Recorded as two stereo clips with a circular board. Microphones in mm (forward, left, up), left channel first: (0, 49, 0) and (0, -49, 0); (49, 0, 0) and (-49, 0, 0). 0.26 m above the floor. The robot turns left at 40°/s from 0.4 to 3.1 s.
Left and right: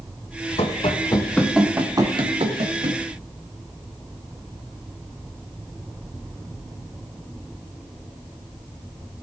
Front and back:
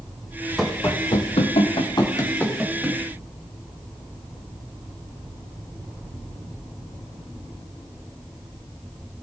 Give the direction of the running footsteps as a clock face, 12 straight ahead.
9 o'clock.